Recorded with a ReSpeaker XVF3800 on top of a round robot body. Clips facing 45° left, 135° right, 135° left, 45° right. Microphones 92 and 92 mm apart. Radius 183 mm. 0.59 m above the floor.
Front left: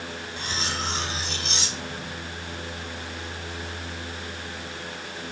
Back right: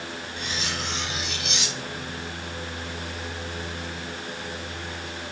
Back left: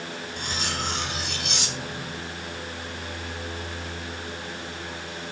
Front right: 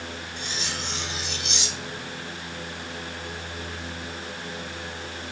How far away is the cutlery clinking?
About 0.9 m.